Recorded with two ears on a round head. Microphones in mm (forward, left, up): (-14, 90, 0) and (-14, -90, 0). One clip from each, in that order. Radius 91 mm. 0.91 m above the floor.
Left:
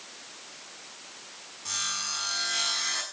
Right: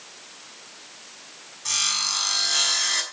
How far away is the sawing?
About 5.5 m.